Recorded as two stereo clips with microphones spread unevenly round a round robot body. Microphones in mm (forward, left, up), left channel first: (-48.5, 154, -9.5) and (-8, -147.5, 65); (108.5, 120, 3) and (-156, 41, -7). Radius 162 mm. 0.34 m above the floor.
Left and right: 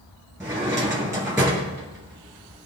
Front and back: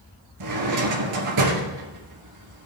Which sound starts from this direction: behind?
A drawer, at 0.4 s.